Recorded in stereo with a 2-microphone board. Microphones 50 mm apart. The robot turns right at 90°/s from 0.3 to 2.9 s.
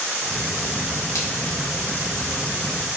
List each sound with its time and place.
1.1 s a splash: 75° left (ahead or behind), 1.7 m; by 1.3 s 80° left, 1.7 m